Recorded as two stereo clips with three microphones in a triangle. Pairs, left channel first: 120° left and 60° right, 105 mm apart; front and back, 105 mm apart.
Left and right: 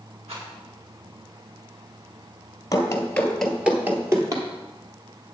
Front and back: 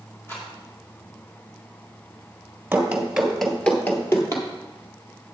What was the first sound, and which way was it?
A rattle, 70° right.